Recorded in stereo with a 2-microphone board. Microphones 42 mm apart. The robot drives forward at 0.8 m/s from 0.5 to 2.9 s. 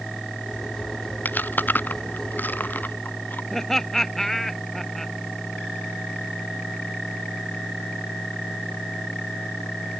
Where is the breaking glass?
No breaking glass in this recording.